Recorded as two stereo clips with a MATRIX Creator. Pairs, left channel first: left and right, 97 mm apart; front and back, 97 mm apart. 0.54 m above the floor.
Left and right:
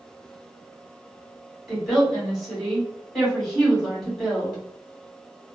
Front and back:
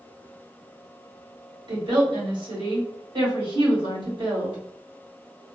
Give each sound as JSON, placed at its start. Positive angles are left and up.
{"t": 1.7, "sound": "a woman speaking", "azimuth_deg": 180, "distance_m": 1.5}